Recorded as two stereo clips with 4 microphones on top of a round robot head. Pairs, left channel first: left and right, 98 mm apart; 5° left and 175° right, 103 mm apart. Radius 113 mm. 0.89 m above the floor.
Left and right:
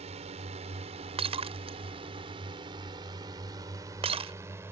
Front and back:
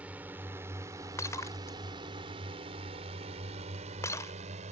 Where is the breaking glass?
65° right.